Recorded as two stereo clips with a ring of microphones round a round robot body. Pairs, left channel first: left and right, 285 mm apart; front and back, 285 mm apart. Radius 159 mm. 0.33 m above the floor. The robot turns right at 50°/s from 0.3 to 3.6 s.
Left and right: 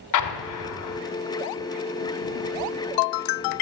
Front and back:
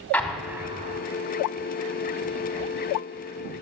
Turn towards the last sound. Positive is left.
turn(degrees=-110)